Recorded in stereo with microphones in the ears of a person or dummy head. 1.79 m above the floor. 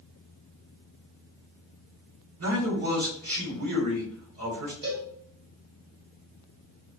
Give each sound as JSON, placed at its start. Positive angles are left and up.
{"t": 2.4, "sound": "a man speaking", "side_deg": -75, "distance_m": 1.9}
{"t": 4.8, "sound": "a cowbell", "side_deg": -55, "distance_m": 1.8}